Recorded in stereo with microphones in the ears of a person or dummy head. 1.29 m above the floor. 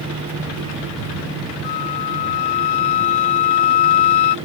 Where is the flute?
25° left (ahead or behind).